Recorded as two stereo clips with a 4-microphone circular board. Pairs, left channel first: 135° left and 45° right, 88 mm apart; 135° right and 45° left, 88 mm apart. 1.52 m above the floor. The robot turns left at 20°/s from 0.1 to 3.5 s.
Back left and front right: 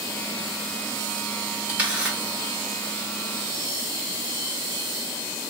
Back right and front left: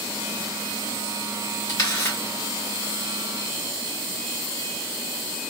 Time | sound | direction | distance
1.7 | a camera shutter | 115° right | 1.4 m